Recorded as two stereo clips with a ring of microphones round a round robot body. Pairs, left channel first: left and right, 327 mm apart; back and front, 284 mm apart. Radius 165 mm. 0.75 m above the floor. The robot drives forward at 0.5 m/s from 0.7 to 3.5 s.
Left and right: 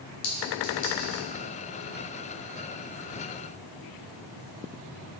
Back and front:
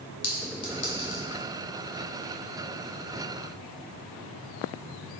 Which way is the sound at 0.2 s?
130° left.